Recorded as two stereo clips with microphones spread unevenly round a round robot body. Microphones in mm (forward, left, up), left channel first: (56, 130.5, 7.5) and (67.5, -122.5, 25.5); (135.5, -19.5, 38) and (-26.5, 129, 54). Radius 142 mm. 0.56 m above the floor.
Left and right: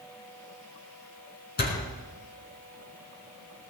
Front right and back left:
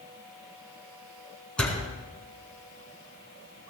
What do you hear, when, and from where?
1.6 s a door slam: 45° left, 5 m